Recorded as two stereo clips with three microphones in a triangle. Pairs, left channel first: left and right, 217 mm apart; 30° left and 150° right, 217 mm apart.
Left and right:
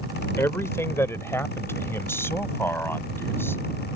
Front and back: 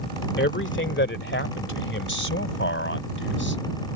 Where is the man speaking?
15° left; by 3.6 s 10° left.